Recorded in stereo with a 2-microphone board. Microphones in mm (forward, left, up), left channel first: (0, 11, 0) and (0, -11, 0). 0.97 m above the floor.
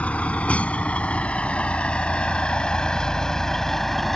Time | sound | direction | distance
0.0 | a vehicle | 75° left (ahead or behind) | ?